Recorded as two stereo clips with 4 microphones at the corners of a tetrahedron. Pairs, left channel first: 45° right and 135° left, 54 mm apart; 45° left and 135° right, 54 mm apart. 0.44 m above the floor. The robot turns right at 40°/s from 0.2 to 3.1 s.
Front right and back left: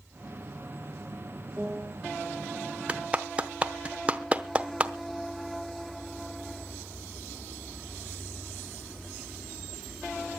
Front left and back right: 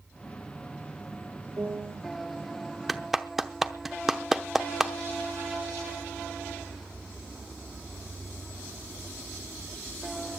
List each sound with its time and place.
1.6 s a piano: 160° right, 2 m; by 2.0 s 140° right, 2 m
2.9 s a clap: 135° left, 0.8 m; by 4.9 s 145° left, 0.8 m